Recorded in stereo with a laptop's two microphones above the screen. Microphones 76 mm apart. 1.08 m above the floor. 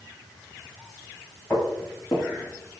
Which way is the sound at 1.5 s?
25° left (ahead or behind).